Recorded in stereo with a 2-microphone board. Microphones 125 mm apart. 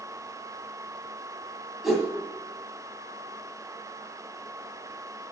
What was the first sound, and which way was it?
A whoosh, centre (ahead or behind).